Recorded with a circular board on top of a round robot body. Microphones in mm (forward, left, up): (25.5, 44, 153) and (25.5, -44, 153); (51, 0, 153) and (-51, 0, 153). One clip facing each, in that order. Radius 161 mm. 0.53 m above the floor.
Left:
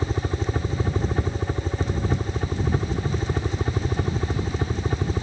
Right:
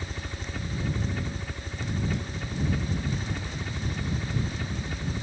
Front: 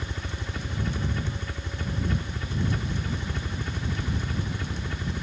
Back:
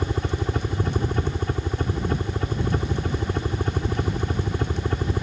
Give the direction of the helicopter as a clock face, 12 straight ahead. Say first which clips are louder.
Left 11 dB, back 10 dB; 7 o'clock.